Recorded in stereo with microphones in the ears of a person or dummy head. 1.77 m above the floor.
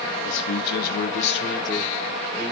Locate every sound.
0.2 s a man speaking: 75° left (ahead or behind), 1.6 m; by 2.5 s centre (ahead or behind), 1.7 m